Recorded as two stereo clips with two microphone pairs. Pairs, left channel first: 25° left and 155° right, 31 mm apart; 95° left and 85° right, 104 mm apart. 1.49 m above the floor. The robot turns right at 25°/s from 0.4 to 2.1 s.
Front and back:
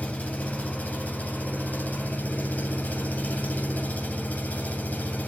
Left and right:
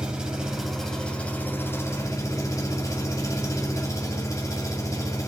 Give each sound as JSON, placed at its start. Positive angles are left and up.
{"t": 0.0, "sound": "an engine running", "azimuth_deg": 0, "distance_m": 2.5}